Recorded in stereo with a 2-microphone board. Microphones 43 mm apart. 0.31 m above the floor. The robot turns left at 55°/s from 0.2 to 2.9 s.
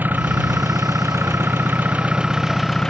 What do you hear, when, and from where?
0.0 s an engine running: 45° right; by 2.9 s 170° left